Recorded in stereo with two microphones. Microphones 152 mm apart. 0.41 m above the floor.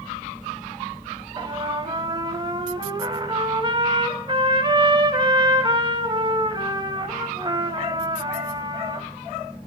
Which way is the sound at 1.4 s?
30° right (ahead or behind).